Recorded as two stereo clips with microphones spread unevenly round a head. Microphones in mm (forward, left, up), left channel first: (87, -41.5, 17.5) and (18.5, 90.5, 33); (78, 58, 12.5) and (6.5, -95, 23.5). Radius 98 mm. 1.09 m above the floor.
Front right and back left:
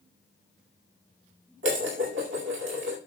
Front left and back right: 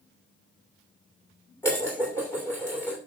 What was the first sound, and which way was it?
Dishes clattering, 145° left.